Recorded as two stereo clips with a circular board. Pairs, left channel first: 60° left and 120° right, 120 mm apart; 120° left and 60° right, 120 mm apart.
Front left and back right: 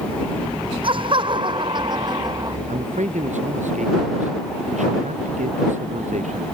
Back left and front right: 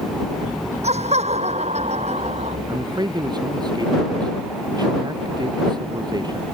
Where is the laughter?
75° right; by 2.6 s 65° right.